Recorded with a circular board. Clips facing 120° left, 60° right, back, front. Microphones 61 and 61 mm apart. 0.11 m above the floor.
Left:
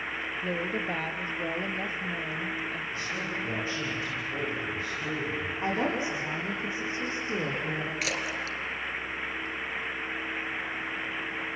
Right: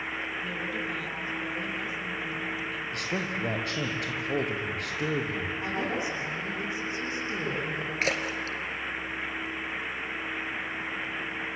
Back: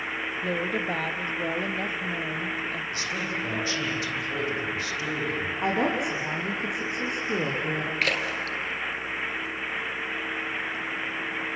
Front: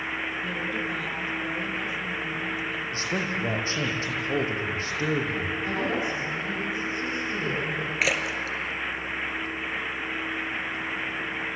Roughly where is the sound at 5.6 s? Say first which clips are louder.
Left 4 dB, back 4 dB; behind.